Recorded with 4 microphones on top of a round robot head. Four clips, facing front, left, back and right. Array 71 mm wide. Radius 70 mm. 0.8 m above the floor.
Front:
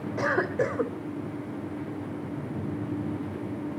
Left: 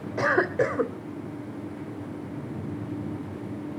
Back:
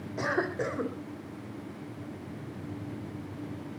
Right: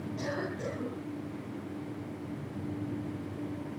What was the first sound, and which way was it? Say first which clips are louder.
A cough: left 14 dB, front 4 dB; 80° left.